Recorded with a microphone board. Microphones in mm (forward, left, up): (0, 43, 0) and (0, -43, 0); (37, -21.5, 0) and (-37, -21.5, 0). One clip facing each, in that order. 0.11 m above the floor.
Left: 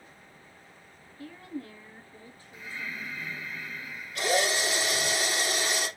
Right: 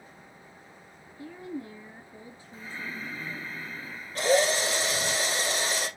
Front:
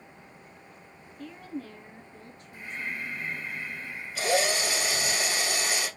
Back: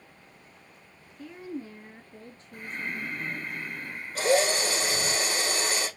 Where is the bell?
No bell in this recording.